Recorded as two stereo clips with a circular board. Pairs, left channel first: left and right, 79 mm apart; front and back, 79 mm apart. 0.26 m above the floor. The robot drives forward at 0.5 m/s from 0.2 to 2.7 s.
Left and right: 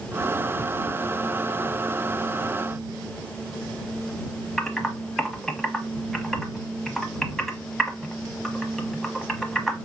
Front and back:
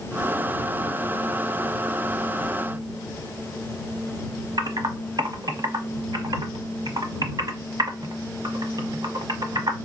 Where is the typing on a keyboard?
175° left, 0.8 m.